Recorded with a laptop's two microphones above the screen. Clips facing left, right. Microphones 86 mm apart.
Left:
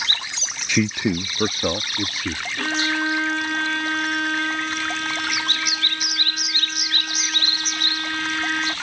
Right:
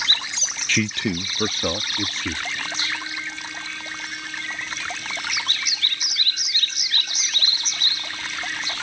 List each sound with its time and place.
0.7 s a man speaking: 15° left (ahead or behind); by 2.5 s 10° left (ahead or behind)
2.6 s a violin: 65° left (ahead or behind)